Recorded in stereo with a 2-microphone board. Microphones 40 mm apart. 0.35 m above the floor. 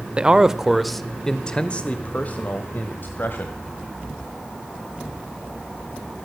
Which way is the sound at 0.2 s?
25° right (ahead or behind).